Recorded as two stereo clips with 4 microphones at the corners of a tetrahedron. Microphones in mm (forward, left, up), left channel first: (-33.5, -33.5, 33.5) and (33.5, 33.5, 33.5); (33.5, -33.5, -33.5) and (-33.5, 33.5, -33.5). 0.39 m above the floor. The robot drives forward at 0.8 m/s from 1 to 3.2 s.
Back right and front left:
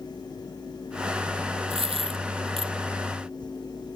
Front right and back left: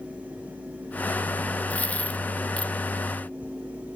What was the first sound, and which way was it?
A dropped coin, 30° left.